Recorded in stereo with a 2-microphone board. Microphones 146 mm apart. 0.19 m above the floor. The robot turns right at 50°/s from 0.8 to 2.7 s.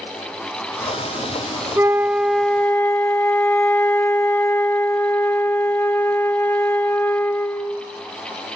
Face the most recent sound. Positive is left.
turn(degrees=20)